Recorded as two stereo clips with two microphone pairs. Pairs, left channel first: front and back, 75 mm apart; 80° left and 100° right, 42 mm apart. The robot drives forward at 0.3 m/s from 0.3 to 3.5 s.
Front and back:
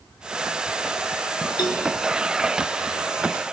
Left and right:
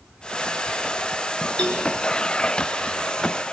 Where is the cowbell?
15° left, 4.5 m.